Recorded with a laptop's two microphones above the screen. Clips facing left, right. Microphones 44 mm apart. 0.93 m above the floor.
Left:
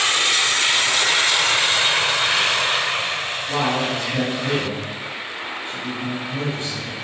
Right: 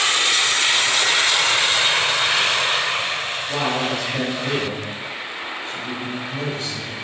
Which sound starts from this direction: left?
A man speaking, at 3.5 s.